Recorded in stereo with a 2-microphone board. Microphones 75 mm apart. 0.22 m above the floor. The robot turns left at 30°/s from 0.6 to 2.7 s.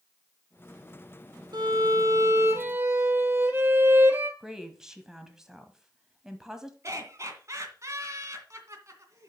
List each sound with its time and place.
1.5 s a violin: 120° right, 1.1 m; by 4.3 s 155° right, 1.1 m
4.4 s a woman speaking: 5° right (ahead or behind), 1.0 m
6.8 s laughter: 40° right (ahead or behind), 2 m